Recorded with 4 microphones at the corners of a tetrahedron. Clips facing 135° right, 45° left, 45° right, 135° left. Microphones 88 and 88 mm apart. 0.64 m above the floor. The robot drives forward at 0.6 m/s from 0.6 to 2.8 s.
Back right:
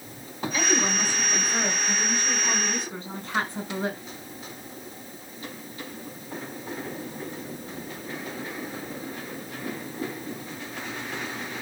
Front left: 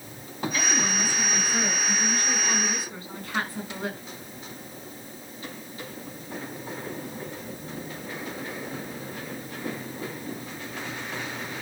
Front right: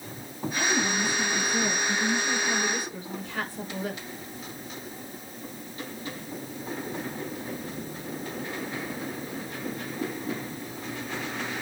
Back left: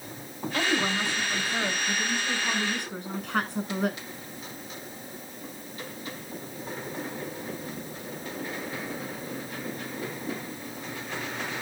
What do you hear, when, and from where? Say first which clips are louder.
0.5 s a woman speaking: back right 3 dB, even; 155° left, 7 m; by 4.0 s 160° left, 8 m